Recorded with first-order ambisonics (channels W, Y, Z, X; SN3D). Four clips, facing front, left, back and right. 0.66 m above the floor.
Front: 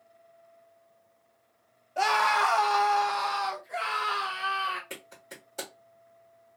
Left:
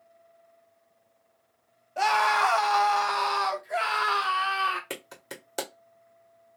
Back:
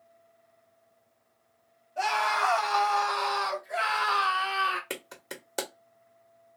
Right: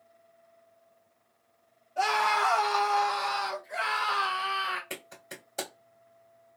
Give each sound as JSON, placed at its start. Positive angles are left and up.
{"t": 2.0, "sound": "a scream", "azimuth_deg": 40, "distance_m": 1.0}
{"t": 4.9, "sound": "a clap", "azimuth_deg": 140, "distance_m": 1.6}